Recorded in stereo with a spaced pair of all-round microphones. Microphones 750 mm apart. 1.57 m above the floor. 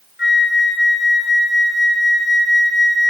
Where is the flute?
15° left (ahead or behind), 0.5 m.